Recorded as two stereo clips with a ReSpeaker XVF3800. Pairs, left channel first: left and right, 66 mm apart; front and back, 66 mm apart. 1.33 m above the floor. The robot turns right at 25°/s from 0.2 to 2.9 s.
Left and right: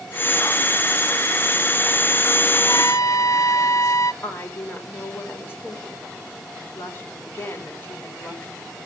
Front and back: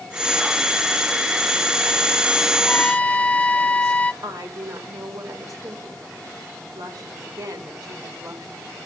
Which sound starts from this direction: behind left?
A woman speaking, at 4.2 s.